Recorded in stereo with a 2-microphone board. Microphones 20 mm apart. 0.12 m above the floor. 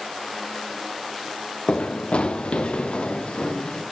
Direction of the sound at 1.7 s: 75° left (ahead or behind).